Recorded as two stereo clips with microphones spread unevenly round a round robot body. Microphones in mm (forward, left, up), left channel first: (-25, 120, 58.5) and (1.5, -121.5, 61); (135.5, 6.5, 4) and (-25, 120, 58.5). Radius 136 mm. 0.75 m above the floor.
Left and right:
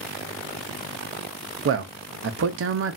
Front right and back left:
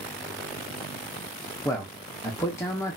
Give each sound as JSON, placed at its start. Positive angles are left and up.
{"t": 1.6, "sound": "a man speaking", "azimuth_deg": -95, "distance_m": 0.6}